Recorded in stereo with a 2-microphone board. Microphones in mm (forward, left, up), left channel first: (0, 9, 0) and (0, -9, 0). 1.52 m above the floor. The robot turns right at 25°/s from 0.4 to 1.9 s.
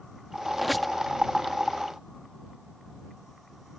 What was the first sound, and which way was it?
A squeak, centre (ahead or behind).